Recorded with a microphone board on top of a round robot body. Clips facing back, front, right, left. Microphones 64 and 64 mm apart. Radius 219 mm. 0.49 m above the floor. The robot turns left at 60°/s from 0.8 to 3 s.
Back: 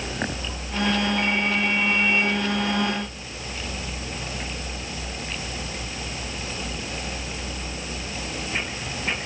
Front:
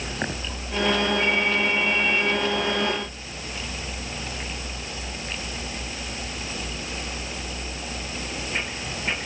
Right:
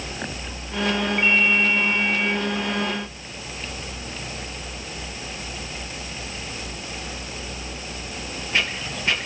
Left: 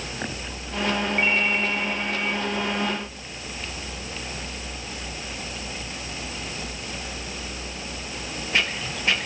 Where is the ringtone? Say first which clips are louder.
Front 1 dB, right 5 dB; 170° left, 9.5 m; by 2.3 s 100° left, 9.5 m.